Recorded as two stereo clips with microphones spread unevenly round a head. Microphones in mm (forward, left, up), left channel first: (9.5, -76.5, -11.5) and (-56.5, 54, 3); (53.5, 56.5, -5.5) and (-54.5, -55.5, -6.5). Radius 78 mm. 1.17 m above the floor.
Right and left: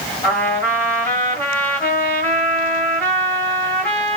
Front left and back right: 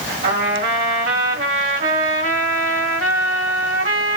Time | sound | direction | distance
0.2 | a trumpet | 145° right | 1.4 m